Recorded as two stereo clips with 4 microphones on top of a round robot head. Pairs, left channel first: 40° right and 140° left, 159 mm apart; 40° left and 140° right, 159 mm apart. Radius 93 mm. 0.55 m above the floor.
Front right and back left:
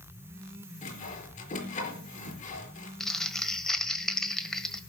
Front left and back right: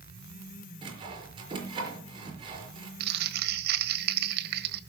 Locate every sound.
0.8 s sawing: 80° right, 4.5 m
3.0 s crumpling: 125° right, 1.4 m